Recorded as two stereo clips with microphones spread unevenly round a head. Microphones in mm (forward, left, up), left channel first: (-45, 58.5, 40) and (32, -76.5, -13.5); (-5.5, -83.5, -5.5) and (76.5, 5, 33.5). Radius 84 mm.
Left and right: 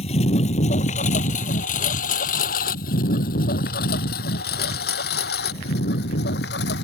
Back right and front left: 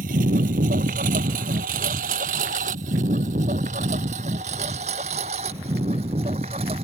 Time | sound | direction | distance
0.0 | a lawn mower | 70° left | ?